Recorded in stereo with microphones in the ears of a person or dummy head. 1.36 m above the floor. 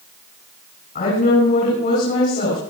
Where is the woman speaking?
45° left (ahead or behind), 9 m.